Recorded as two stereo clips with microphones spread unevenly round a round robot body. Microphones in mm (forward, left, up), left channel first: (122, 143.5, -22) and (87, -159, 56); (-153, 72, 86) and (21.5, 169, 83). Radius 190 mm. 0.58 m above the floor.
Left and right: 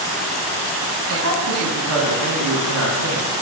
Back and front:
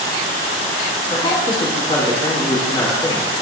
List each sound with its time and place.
1.1 s a man speaking: 100° right, 1.2 m